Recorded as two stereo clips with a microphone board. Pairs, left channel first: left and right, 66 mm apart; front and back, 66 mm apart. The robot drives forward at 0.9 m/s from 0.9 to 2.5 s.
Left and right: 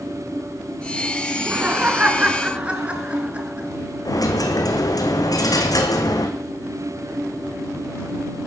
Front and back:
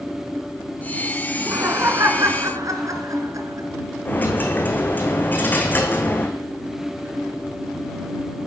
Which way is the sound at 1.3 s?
135° right.